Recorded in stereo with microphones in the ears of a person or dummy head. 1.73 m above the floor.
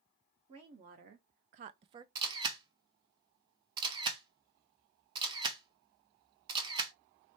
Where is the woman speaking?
35° right (ahead or behind), 0.9 m; by 2.0 s 25° right (ahead or behind), 0.5 m.